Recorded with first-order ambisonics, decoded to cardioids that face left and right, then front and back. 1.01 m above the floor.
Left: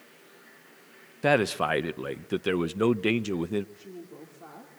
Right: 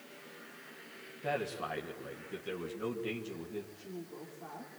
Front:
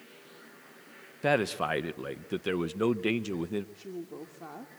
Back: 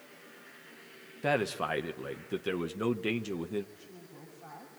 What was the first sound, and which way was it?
A man speaking, 80° left.